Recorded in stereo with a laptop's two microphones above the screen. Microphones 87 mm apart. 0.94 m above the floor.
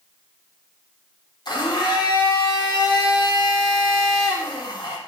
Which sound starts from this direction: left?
A blender, at 1.4 s.